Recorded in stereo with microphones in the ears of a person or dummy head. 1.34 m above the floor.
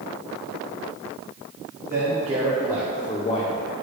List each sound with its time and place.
1.9 s a man speaking: 35° right (ahead or behind), 1.4 m; by 3.7 s 55° left (ahead or behind), 0.9 m